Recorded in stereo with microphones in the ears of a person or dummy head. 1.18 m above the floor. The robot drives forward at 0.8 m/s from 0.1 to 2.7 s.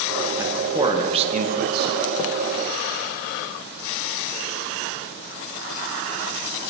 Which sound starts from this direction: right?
A man speaking, at 0.4 s.